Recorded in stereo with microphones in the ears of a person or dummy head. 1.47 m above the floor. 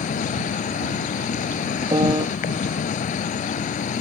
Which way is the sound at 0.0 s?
35° left (ahead or behind).